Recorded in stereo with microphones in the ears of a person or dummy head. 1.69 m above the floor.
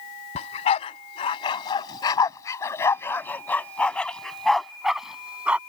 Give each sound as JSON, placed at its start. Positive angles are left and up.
{"t": 0.3, "sound": "a dog barking", "side_deg": 40}